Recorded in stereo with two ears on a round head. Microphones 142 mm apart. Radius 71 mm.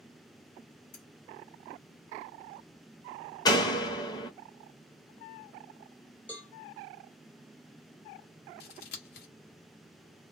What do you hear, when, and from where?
0.9 s cutlery clinking: 50° left (ahead or behind), 1.6 m
3.5 s a door slam: 25° left (ahead or behind), 0.7 m
6.3 s a cowbell: 10° left (ahead or behind), 0.9 m
8.6 s scissors: 70° left (ahead or behind), 0.9 m